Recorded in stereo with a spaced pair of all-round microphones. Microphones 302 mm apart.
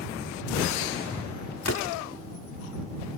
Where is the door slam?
60° left (ahead or behind).